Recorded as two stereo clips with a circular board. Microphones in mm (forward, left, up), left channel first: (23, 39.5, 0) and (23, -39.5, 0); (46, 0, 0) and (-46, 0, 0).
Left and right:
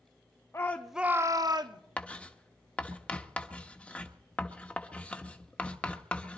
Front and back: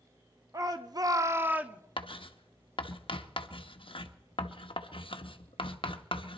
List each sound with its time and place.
0.5 s a shout: 135° left, 0.9 m; by 1.8 s 105° right, 1.5 m
2.0 s writing: 15° left, 0.9 m